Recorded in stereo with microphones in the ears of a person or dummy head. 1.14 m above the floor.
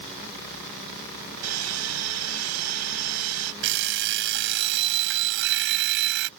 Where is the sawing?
85° right.